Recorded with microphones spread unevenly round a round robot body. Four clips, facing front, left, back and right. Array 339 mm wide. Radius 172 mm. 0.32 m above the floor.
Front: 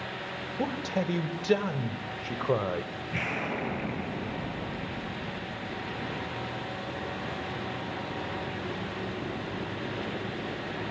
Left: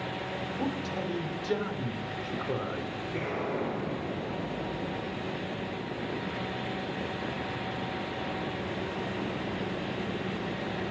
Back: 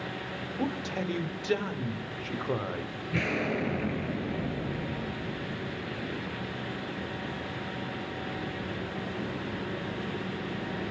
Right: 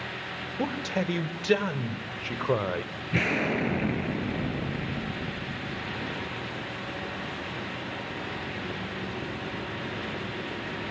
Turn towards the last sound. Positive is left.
turn(degrees=-105)